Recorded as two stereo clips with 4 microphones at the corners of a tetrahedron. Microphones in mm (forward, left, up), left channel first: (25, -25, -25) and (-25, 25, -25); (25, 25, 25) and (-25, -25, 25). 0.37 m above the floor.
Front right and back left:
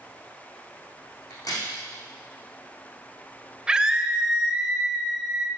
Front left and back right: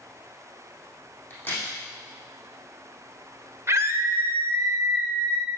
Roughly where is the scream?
Behind right.